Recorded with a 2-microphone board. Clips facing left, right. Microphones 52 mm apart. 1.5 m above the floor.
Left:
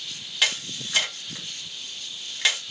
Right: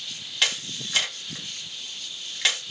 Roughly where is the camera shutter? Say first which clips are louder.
Left 1 dB; centre.